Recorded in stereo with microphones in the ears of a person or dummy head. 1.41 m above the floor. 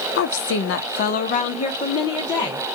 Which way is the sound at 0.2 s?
50° left (ahead or behind).